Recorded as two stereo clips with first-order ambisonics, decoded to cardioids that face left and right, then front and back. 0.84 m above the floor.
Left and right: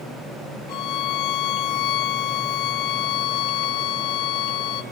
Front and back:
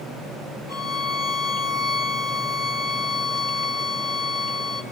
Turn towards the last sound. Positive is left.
turn(degrees=95)